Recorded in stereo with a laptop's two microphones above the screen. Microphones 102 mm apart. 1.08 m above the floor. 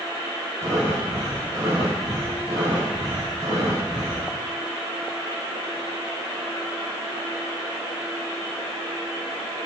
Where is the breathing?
70° right (ahead or behind), 6.5 m.